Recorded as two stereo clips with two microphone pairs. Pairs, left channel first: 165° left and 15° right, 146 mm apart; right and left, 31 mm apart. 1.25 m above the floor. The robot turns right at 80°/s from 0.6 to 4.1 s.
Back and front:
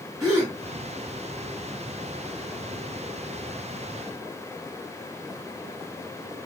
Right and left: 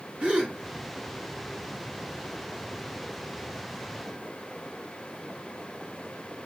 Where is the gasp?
45° left, 1.4 m.